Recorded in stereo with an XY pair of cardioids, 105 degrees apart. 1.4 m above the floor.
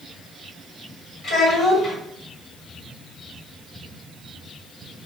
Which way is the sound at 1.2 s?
60° left.